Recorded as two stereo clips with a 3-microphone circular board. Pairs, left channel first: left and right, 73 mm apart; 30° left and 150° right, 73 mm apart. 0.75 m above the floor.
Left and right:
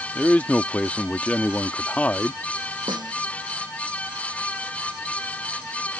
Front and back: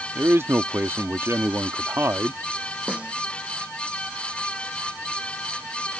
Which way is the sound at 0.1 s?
160° left.